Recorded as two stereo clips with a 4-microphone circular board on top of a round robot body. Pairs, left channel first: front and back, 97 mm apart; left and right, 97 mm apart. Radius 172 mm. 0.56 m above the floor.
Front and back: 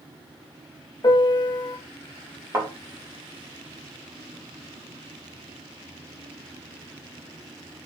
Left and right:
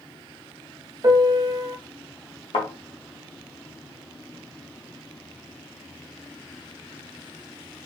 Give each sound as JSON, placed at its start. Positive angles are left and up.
{"t": 1.0, "sound": "a piano", "azimuth_deg": -40, "distance_m": 0.6}
{"t": 2.5, "sound": "a thud", "azimuth_deg": 115, "distance_m": 1.2}